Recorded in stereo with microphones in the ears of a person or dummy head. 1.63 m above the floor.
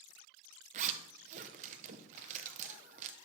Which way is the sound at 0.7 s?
40° right (ahead or behind).